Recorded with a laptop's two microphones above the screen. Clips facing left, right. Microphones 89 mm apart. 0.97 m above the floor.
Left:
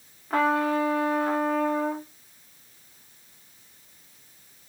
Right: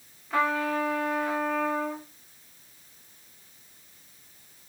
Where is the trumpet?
50° left (ahead or behind), 1.5 m.